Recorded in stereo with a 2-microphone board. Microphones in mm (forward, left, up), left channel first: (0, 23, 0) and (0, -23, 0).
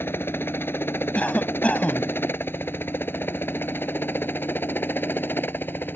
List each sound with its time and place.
0.0 s a helicopter: 55° left (ahead or behind); by 6.0 s 50° left (ahead or behind)
1.1 s a cough: 30° left (ahead or behind)